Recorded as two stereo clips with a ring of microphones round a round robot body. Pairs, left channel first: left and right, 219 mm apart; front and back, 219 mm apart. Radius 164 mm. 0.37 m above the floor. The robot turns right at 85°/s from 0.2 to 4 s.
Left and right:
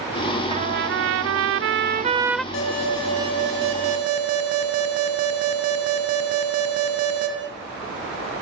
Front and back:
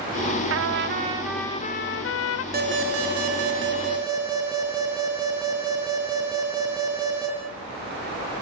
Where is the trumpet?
160° right, 0.6 m; by 2.4 s 5° left, 0.6 m.